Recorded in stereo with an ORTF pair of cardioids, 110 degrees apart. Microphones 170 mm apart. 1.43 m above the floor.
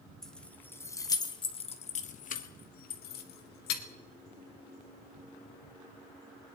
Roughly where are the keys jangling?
Ahead.